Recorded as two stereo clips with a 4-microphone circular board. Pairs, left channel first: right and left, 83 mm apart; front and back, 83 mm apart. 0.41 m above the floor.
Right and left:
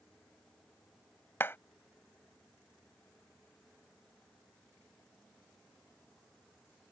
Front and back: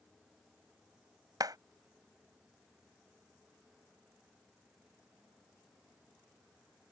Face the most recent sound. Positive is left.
turn(degrees=-150)